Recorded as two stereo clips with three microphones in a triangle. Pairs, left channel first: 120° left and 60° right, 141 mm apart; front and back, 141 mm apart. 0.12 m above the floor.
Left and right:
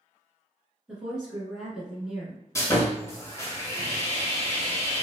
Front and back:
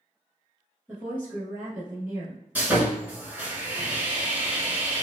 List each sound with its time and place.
0.9 s a woman speaking: 140° right, 1.2 m
2.5 s sawing: 125° left, 1.1 m